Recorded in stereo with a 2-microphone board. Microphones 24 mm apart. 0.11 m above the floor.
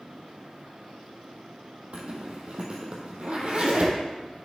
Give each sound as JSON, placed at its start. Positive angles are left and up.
{"t": 1.9, "sound": "a zipper", "side_deg": -55, "distance_m": 2.0}